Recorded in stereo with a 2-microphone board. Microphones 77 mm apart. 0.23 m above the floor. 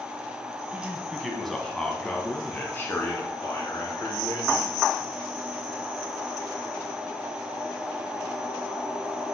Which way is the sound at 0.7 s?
15° right (ahead or behind).